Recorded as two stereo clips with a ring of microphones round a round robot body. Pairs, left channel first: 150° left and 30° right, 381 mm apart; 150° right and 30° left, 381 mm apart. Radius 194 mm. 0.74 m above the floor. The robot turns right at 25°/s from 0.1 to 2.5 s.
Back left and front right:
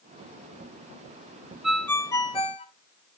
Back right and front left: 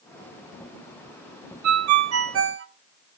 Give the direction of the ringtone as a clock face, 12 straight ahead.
10 o'clock.